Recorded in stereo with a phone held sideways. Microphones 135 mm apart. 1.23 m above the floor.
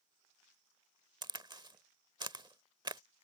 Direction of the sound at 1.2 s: 35° right (ahead or behind).